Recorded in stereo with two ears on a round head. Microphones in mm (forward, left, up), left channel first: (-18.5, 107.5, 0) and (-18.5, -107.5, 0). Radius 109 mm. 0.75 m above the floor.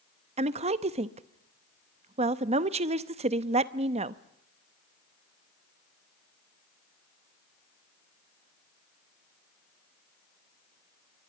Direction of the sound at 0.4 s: 25° right (ahead or behind).